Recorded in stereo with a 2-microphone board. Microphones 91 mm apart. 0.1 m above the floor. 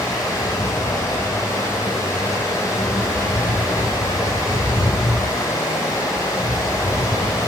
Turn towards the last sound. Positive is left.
turn(degrees=40)  # may be behind; listen again after turning